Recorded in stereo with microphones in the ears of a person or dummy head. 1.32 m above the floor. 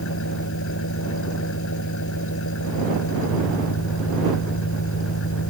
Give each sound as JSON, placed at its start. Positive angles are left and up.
{"t": 0.0, "sound": "an engine running", "side_deg": 70}